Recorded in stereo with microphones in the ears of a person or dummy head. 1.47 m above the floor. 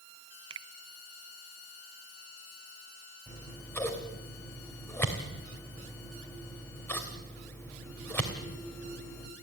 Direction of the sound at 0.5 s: 30° right (ahead or behind).